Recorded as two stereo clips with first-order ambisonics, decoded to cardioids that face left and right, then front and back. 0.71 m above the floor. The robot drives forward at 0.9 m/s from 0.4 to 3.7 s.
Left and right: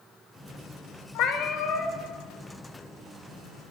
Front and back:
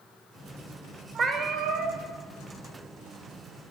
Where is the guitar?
I don't hear a guitar.